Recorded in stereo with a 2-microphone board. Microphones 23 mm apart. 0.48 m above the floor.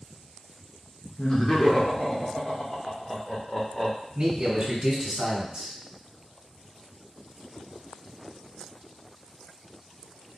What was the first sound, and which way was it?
Laughter, 25° left (ahead or behind).